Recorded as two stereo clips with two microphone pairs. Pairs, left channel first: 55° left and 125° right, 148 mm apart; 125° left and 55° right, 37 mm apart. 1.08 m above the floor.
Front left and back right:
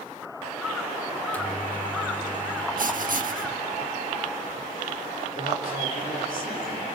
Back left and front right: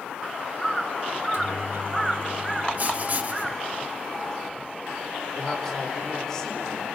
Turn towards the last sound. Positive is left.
turn(degrees=45)